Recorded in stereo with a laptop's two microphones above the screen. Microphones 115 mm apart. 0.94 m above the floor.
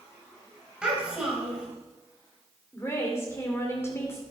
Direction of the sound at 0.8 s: 10° right (ahead or behind).